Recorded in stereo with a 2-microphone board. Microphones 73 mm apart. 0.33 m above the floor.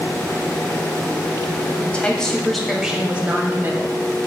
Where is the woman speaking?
20° left (ahead or behind), 1.5 m; by 4.0 s 40° right (ahead or behind), 1.5 m.